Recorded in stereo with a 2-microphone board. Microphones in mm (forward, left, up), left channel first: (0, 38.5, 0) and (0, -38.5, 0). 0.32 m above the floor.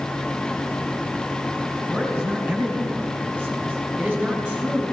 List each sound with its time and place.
1.9 s a man speaking: 15° right (ahead or behind), 6 m; by 4.8 s 25° right (ahead or behind), 4 m